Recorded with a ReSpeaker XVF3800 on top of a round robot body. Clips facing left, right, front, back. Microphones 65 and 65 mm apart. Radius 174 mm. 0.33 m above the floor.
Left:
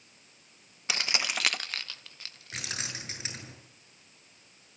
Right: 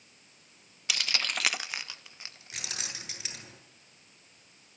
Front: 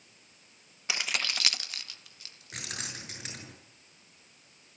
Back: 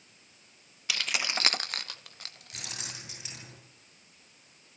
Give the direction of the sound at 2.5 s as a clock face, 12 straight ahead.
11 o'clock.